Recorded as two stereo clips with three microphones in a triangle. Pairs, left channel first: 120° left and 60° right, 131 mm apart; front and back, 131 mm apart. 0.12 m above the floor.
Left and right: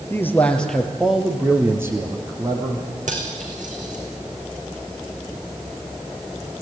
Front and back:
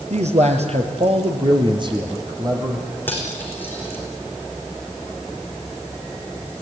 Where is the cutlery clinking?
75° right, 4 m.